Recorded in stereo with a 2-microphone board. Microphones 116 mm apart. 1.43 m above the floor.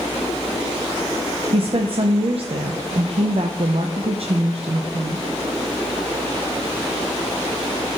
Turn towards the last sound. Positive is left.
turn(degrees=-55)  # may be behind; listen again after turning